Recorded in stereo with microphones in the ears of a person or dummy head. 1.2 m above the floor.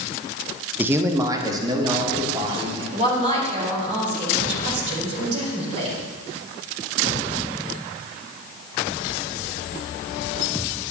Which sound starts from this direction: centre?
A man speaking, at 0.8 s.